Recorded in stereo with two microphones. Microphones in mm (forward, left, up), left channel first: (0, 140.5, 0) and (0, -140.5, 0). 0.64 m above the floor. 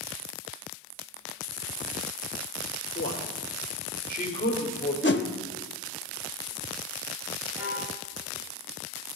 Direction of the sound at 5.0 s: 40° left (ahead or behind).